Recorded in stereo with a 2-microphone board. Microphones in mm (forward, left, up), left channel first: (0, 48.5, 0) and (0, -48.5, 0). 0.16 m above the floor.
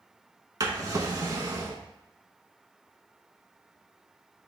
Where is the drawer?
40° right (ahead or behind), 0.5 m.